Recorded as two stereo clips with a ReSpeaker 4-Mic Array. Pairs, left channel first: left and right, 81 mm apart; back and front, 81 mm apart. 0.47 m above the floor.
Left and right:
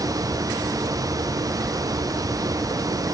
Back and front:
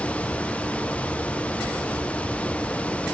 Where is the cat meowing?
I don't hear a cat meowing.